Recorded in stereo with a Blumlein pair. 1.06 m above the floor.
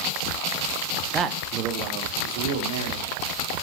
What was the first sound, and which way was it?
A man speaking, 20° right.